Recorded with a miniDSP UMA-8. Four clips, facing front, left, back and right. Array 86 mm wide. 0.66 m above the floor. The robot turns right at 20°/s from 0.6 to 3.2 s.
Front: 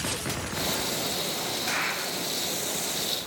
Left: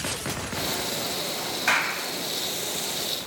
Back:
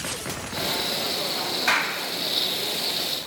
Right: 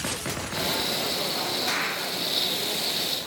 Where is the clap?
130° left, 3.5 m; by 2.0 s 140° left, 3.5 m.